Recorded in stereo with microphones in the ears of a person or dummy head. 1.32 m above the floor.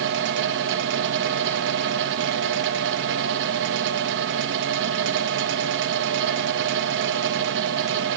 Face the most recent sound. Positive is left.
turn(degrees=-70)  # may be behind; listen again after turning